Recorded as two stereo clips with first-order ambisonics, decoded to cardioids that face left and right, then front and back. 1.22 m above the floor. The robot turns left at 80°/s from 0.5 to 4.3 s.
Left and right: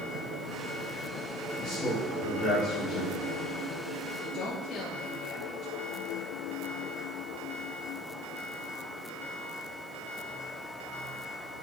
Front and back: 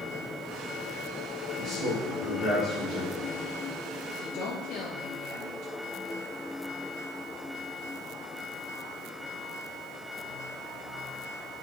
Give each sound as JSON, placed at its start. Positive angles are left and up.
{"t": 1.6, "sound": "a man speaking", "azimuth_deg": 170, "distance_m": 2.0}
{"t": 4.2, "sound": "a woman speaking", "azimuth_deg": 40, "distance_m": 1.2}